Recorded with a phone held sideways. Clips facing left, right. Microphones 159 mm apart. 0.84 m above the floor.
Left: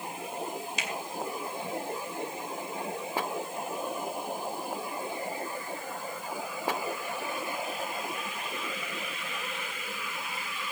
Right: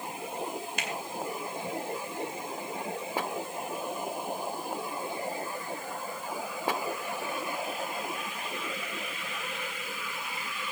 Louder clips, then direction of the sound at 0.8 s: Right 1 dB; 55° right (ahead or behind).